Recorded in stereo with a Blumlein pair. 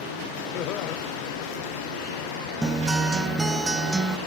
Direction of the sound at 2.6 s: 10° right.